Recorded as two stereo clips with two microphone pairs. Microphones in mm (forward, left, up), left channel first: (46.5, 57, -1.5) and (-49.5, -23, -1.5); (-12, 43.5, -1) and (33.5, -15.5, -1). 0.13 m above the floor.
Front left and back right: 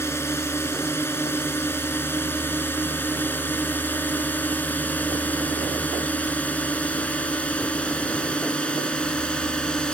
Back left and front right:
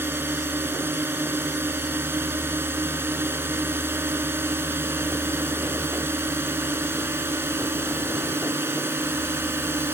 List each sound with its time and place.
0.0 s a drone: 15° right; by 9.9 s 35° right